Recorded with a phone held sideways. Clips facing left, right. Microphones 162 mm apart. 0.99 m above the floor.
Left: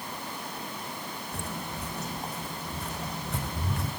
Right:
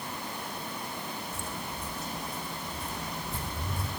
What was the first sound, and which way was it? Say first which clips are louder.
Footsteps: left 2 dB; 65° left (ahead or behind).